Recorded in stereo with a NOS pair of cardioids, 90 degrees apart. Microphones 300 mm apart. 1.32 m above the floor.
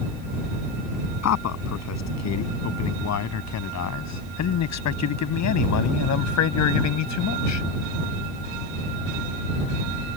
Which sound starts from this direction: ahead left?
A man speaking, at 1.2 s.